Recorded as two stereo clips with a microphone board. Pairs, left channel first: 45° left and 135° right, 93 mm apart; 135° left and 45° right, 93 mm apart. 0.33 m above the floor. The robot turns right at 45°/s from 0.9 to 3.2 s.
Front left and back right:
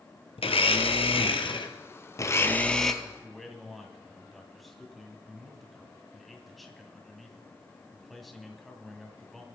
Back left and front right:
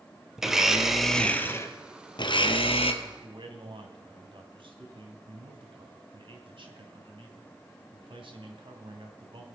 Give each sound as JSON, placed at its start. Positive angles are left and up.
{"t": 0.4, "sound": "a blender", "azimuth_deg": 40, "distance_m": 1.2}
{"t": 3.0, "sound": "a man speaking", "azimuth_deg": -55, "distance_m": 2.0}